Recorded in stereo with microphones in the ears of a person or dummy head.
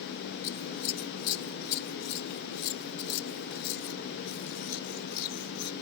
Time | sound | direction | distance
0.4 | scissors | 85° left | ?